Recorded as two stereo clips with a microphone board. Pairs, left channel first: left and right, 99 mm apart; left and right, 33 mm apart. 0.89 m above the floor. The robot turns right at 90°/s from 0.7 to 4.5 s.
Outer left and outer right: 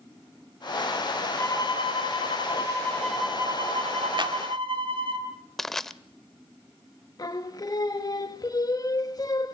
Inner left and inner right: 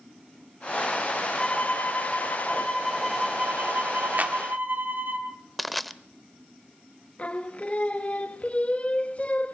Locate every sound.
1.4 s a violin: 20° left, 2.5 m; by 5.2 s 60° right, 2.5 m
4.2 s a clap: 55° right (ahead or behind), 1.8 m; by 4.4 s 35° right (ahead or behind), 1.8 m
5.6 s crushing: 5° left (ahead or behind), 0.7 m
7.2 s singing: 40° left (ahead or behind), 1.4 m